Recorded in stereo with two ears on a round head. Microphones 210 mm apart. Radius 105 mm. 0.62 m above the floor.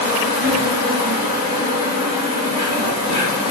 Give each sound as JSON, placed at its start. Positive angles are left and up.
{"t": 0.0, "sound": "an insect", "side_deg": 85, "distance_m": 1.4}